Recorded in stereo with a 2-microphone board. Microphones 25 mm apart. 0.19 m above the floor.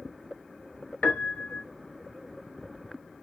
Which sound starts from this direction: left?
A piano, at 1.0 s.